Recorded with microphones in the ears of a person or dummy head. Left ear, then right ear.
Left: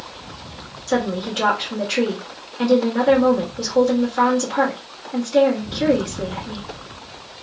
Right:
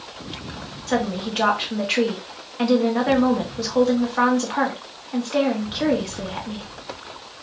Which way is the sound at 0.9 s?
30° right (ahead or behind).